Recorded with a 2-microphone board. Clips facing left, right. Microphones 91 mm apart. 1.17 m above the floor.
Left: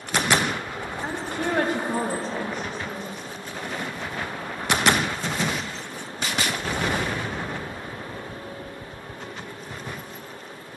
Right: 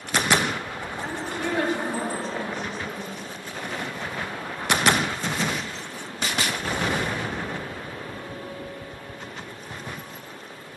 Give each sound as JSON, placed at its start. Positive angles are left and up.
{"t": 1.0, "sound": "a woman speaking", "side_deg": 25, "distance_m": 0.9}